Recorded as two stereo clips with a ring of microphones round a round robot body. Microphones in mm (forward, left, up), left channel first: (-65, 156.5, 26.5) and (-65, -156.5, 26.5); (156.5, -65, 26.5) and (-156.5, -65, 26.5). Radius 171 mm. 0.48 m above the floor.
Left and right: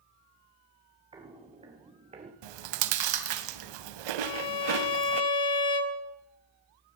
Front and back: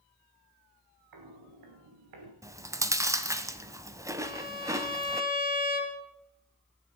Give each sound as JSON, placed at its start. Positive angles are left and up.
{"t": 1.1, "sound": "footsteps", "azimuth_deg": -165, "distance_m": 4.0}
{"t": 2.4, "sound": "chewing", "azimuth_deg": -100, "distance_m": 0.9}
{"t": 4.2, "sound": "a violin", "azimuth_deg": 105, "distance_m": 1.4}